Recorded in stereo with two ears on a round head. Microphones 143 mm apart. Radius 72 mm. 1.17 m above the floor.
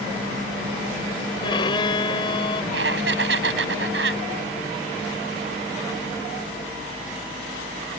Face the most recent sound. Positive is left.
turn(degrees=-80)